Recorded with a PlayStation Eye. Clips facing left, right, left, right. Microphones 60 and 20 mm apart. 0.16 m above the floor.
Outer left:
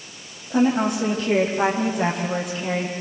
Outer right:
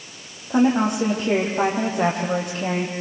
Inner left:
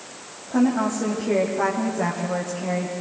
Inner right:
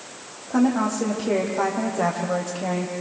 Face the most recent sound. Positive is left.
turn(degrees=-45)  # may be behind; listen again after turning